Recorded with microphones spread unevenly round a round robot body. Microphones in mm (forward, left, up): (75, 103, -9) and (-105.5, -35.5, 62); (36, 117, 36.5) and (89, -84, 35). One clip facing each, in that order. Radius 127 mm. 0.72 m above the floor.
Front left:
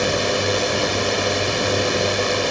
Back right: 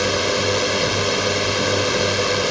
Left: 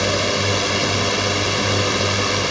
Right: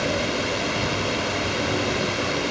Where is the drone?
140° left.